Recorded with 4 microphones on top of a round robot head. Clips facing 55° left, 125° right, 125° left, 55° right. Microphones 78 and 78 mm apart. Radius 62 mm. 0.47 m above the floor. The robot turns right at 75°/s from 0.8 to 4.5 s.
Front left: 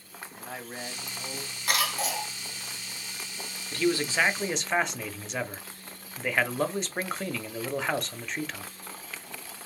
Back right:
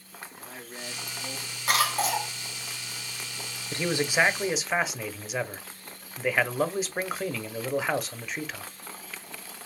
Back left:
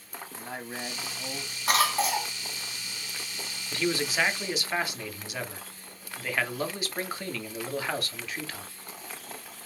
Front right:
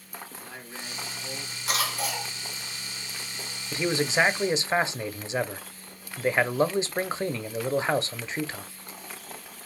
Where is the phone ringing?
No phone ringing in this recording.